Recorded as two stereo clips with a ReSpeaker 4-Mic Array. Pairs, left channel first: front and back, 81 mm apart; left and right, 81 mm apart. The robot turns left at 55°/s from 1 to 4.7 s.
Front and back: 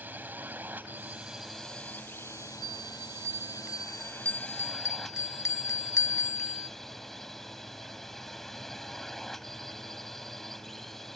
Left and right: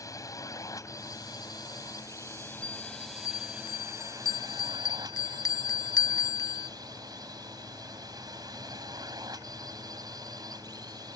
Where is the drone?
115° left; by 11.2 s 85° right.